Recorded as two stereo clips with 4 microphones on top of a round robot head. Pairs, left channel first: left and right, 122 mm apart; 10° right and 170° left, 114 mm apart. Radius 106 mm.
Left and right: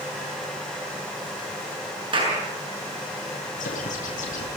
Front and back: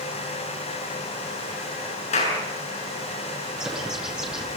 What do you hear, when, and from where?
2.1 s a clap: 35° right, 7 m
3.6 s a bird: 90° left, 8.5 m